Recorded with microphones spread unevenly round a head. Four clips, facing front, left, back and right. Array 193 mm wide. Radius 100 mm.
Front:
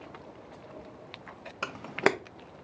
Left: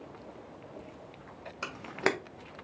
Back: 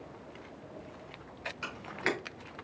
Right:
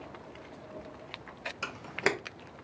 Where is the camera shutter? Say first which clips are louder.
Left 1 dB, front 9 dB; 10° left, 0.8 m.